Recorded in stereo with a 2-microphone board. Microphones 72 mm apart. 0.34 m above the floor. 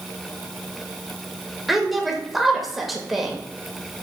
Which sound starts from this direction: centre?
A woman speaking, at 1.7 s.